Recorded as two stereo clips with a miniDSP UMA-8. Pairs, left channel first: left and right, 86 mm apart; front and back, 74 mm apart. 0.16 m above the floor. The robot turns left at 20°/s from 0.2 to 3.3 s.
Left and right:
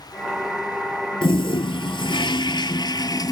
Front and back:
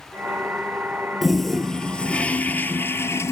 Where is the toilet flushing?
90° left, 0.7 m; by 3.3 s 50° left, 0.7 m.